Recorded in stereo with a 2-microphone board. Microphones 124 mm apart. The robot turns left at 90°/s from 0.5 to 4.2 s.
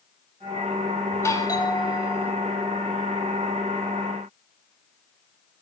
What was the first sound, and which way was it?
A doorbell, 150° left.